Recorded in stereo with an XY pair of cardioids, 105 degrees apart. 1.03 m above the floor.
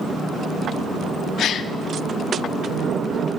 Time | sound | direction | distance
1.4 | a gasp | 65° left | 1.0 m